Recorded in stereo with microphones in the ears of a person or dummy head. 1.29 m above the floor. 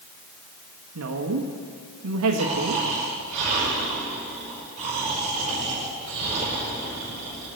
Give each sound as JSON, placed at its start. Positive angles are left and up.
{"t": 0.9, "sound": "a woman speaking", "side_deg": -85, "distance_m": 1.4}
{"t": 2.4, "sound": "snoring", "side_deg": -30, "distance_m": 5.5}